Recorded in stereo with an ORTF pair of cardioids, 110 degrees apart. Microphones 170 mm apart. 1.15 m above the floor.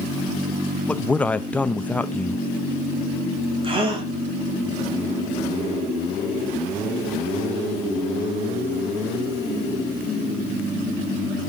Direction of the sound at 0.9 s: 10° left.